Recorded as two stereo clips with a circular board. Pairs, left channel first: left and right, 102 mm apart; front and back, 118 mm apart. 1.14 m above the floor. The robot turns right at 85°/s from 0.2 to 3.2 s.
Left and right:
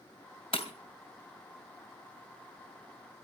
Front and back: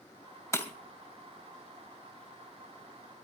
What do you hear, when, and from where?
0.5 s breaking glass: 65° left, 2.5 m; by 0.7 s 80° left, 2.5 m